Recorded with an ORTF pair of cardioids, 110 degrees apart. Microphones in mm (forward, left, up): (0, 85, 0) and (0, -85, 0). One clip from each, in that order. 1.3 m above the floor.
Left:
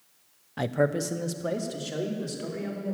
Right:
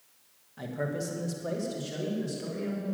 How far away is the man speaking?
About 0.7 m.